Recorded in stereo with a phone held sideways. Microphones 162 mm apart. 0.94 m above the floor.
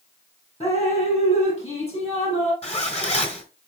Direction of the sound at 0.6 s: 40° left (ahead or behind).